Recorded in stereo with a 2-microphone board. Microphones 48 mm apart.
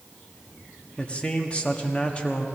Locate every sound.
1.0 s a man speaking: 25° left (ahead or behind), 1.2 m